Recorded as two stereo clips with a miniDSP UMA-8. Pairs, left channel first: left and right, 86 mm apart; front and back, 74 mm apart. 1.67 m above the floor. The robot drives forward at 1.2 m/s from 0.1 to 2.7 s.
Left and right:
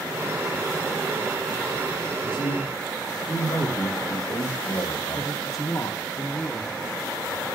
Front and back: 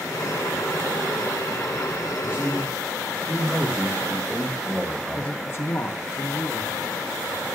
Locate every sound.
2.2 s a man speaking: 95° left, 2.5 m; by 5.3 s 105° left, 2.5 m
5.2 s a man speaking: 55° left, 1.1 m